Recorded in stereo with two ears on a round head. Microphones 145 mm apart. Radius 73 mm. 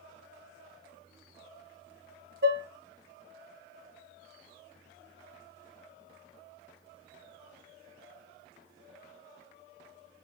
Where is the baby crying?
I don't hear a baby crying.